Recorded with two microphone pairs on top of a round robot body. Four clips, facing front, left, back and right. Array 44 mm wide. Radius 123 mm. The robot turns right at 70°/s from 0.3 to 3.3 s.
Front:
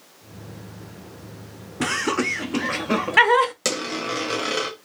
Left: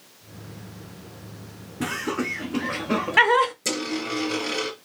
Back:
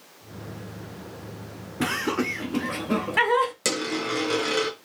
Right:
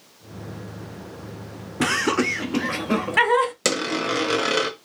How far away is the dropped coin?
About 0.9 m.